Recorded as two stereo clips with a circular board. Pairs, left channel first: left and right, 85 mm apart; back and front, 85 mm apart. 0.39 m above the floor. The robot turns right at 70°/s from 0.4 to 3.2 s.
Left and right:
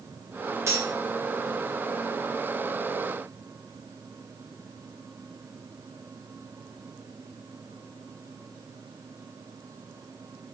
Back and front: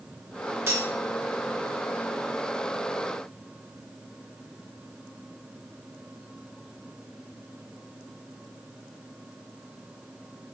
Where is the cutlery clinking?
50° right, 0.6 m; by 0.9 s 30° right, 0.6 m.